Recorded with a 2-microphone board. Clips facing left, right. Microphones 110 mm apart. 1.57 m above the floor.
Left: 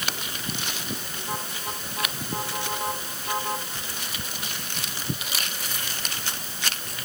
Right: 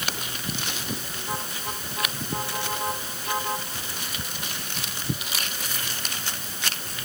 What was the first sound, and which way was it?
Only background noise.